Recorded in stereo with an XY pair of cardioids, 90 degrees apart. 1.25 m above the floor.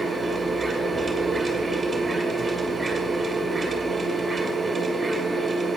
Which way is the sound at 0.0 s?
20° right.